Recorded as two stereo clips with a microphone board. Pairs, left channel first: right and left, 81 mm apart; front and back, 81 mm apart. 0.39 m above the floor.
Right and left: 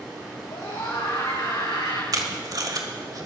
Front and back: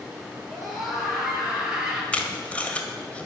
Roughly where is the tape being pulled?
Left.